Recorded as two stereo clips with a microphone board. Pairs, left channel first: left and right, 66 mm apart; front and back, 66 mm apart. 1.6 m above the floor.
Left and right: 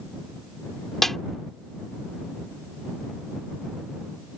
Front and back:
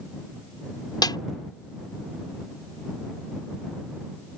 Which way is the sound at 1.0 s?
5° left.